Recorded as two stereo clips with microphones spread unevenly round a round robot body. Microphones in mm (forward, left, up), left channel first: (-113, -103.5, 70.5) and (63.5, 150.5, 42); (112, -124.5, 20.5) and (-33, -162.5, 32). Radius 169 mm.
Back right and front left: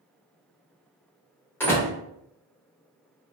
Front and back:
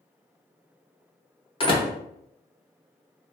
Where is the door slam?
40° right, 1.0 m.